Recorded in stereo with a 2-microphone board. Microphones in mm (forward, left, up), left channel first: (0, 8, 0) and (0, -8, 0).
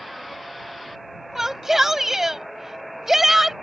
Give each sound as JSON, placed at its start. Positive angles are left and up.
{"t": 1.4, "sound": "a shout", "side_deg": -25}